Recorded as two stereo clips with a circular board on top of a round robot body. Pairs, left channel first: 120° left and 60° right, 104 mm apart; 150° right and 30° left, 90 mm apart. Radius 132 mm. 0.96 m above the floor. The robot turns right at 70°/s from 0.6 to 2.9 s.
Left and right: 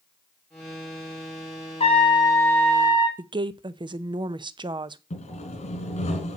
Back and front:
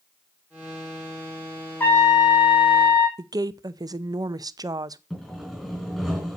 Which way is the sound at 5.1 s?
120° left.